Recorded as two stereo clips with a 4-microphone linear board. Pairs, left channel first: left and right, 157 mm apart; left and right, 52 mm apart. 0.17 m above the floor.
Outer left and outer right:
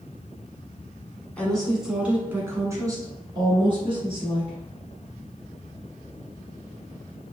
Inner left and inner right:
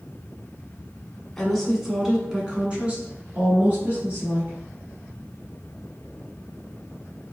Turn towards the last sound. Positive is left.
turn(degrees=-40)  # may be behind; listen again after turning